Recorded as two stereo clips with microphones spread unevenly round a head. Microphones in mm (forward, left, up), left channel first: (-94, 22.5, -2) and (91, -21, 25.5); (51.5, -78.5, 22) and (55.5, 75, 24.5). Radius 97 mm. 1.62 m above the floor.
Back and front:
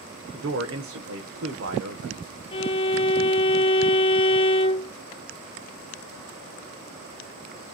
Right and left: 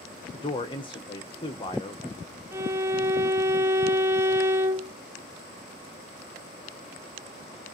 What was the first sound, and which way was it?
A man speaking, 35° right.